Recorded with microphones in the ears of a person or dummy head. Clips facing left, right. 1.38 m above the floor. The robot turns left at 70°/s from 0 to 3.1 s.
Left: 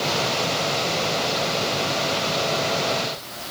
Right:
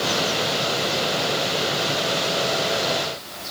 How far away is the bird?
No bird in this recording.